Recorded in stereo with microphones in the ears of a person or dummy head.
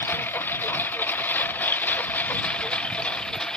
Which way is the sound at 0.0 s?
10° left (ahead or behind).